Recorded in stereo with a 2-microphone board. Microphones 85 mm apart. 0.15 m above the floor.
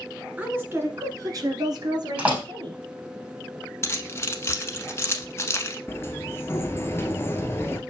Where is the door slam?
15° right (ahead or behind), 4.5 m.